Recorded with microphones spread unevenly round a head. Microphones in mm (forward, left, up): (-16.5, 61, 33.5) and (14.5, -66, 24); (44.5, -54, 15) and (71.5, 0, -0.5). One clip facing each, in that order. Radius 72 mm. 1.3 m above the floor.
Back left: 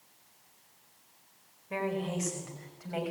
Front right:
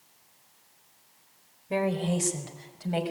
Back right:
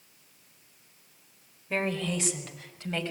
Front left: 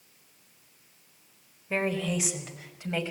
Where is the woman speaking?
20° right, 4.5 m; by 3.1 s 15° right, 6.5 m.